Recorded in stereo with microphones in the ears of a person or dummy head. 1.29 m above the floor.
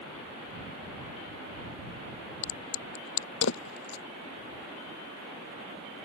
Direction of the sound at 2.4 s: 70° left (ahead or behind).